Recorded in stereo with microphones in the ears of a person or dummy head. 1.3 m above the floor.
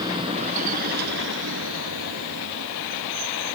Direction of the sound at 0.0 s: 20° right (ahead or behind).